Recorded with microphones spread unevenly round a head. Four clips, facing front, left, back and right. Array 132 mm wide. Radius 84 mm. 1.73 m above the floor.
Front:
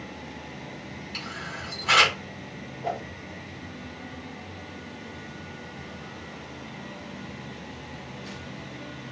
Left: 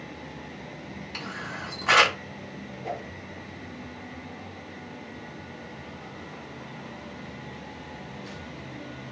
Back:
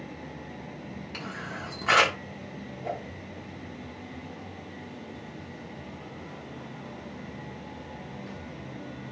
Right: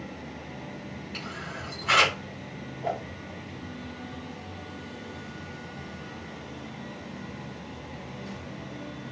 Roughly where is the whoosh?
Ahead right.